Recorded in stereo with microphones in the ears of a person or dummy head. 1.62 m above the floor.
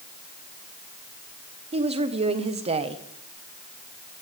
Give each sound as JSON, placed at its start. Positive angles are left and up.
{"t": 1.7, "sound": "a woman speaking", "side_deg": -30, "distance_m": 1.1}